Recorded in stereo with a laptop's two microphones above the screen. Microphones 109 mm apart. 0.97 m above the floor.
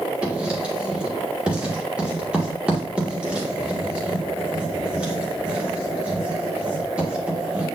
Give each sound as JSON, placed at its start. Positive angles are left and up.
{"t": 0.2, "sound": "writing", "side_deg": -10, "distance_m": 1.7}